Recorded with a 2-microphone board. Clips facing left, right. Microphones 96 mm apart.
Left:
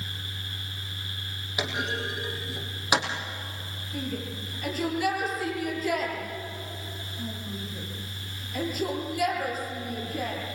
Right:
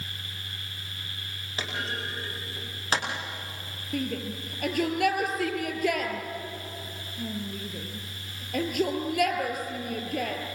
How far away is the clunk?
About 4.5 m.